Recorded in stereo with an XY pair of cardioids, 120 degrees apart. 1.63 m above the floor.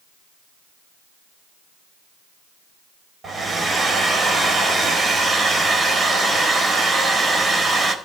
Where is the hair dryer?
25° right, 4 m.